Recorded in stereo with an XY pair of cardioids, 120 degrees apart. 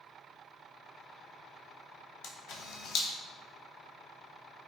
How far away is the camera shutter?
About 0.6 m.